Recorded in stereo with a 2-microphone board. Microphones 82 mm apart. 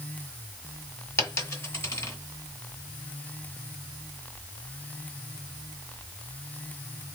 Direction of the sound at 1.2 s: 35° left (ahead or behind).